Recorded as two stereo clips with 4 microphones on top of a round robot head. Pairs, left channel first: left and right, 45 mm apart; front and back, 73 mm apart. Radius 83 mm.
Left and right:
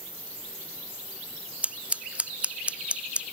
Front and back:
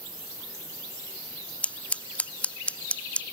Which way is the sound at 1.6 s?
60° right.